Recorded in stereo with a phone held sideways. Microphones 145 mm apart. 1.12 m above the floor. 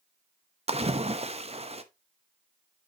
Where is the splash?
45° right (ahead or behind), 0.8 m.